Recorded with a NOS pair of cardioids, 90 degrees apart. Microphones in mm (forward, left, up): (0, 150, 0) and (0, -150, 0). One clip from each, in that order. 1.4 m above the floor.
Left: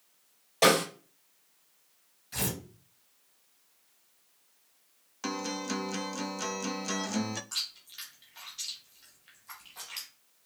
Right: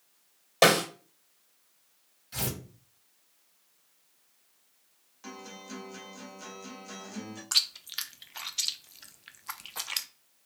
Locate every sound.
0.6 s a snare drum: 40° right, 2 m
2.3 s tearing paper: 5° left, 2.5 m
5.2 s a guitar: 65° left, 0.5 m
7.5 s chewing: 60° right, 0.6 m